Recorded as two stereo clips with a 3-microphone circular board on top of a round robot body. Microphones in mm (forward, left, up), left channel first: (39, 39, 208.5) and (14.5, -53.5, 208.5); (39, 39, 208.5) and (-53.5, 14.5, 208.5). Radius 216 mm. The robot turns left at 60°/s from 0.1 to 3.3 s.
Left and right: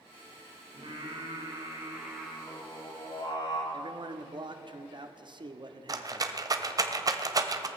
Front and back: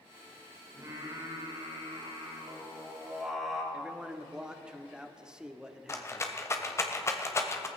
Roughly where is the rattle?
Ahead right.